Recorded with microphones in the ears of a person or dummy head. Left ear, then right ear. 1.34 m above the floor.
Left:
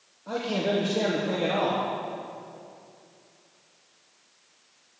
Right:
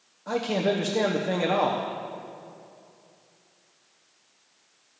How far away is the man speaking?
About 0.9 m.